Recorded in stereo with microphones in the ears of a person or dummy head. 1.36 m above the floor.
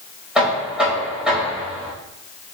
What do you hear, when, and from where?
0.3 s knocking: 10° right (ahead or behind), 4 m